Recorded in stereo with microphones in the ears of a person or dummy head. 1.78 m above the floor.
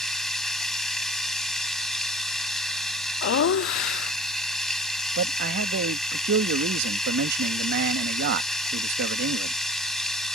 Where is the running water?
Centre (ahead or behind).